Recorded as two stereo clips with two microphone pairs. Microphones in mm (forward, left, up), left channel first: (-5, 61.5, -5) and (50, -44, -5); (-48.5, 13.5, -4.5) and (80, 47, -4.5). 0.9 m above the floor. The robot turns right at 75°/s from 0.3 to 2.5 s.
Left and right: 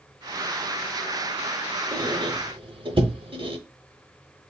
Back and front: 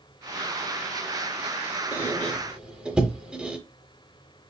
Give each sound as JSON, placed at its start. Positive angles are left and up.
{"t": 1.9, "sound": "a squeak", "azimuth_deg": -105, "distance_m": 0.8}